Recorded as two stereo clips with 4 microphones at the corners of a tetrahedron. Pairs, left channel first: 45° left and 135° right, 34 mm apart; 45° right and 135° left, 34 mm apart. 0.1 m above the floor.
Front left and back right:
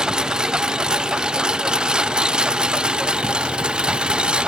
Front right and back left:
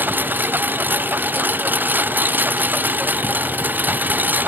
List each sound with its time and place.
0.0 s a lawn mower: 160° left; by 4.5 s 165° left